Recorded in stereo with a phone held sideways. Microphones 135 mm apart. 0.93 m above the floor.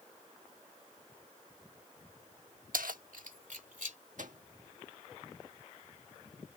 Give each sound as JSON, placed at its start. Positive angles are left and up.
{"t": 2.7, "sound": "keys jangling", "side_deg": -85}
{"t": 4.2, "sound": "a microwave", "side_deg": -70}